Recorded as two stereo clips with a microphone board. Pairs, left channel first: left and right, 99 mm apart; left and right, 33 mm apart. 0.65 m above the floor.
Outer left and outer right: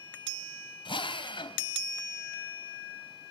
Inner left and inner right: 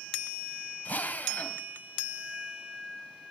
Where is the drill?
55° left (ahead or behind), 2 m.